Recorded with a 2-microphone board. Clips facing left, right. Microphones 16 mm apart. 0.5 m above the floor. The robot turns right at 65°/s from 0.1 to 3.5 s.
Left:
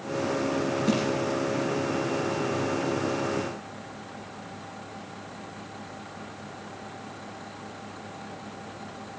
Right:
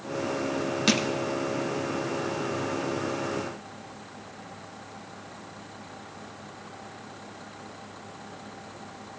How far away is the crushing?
About 3 m.